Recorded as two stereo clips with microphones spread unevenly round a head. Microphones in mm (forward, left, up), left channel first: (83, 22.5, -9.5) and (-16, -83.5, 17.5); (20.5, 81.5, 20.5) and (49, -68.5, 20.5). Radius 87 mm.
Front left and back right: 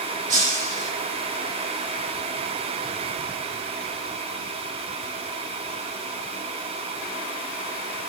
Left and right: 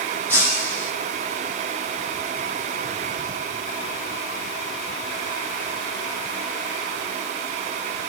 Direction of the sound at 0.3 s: Straight behind.